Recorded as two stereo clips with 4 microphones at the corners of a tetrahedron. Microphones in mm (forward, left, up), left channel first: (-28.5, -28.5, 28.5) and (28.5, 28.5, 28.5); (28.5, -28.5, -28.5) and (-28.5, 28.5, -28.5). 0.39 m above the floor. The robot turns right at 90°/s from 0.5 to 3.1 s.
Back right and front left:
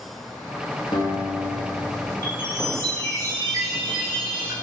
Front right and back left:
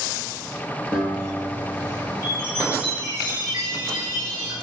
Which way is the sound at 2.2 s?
10° left.